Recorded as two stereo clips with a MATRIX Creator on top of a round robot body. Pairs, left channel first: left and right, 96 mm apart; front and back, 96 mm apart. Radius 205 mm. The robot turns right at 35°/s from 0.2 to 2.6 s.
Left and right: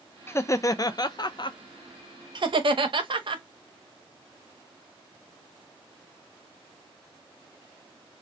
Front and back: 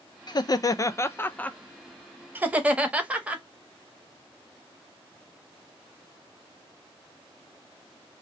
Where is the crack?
No crack in this recording.